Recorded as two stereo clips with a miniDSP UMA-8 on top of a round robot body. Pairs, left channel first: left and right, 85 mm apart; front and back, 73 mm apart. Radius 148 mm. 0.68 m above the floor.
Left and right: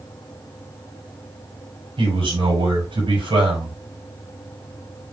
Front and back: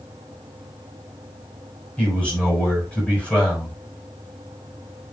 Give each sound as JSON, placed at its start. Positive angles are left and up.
{"t": 2.0, "sound": "a man speaking", "azimuth_deg": -75, "distance_m": 6.0}